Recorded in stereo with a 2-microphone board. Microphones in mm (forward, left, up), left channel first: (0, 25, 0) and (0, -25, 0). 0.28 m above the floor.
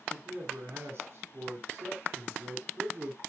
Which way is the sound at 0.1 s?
50° right (ahead or behind).